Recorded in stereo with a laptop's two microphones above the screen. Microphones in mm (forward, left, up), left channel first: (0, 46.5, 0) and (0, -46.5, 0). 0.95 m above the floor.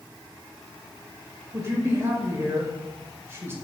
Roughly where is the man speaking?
Right.